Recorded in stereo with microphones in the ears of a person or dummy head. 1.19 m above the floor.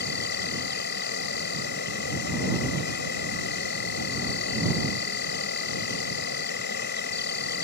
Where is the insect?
60° left (ahead or behind).